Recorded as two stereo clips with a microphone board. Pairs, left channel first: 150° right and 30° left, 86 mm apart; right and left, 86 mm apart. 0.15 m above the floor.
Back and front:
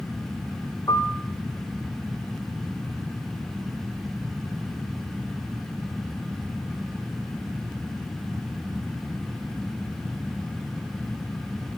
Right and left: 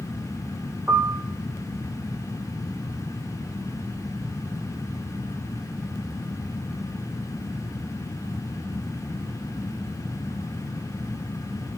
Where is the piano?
160° left, 1.8 m.